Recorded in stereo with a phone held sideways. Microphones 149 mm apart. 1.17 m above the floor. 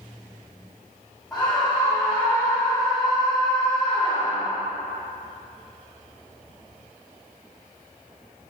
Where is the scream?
5° left (ahead or behind), 2 m.